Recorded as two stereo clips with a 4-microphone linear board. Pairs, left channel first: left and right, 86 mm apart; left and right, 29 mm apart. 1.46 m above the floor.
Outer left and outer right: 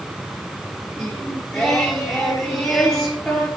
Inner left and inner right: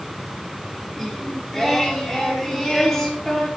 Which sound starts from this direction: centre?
Singing, at 1.0 s.